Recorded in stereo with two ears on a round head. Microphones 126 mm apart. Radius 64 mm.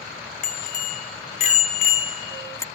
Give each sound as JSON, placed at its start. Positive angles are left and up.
{"t": 0.4, "sound": "a bicycle bell", "side_deg": 65}